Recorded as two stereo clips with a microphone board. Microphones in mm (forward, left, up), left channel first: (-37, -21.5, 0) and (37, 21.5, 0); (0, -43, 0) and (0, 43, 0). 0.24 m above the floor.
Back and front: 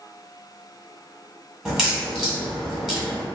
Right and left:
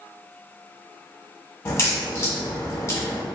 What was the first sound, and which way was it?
A crack, 50° right.